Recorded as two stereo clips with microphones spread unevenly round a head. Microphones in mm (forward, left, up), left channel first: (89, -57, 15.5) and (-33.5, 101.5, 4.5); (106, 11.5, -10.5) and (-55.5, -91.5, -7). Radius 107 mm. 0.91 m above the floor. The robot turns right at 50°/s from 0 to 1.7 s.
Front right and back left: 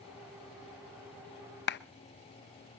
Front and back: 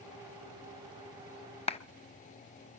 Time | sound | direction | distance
1.7 | a clap | 25° right | 0.7 m